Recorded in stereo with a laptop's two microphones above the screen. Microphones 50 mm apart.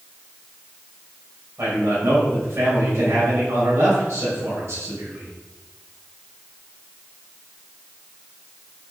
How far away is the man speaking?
About 5 m.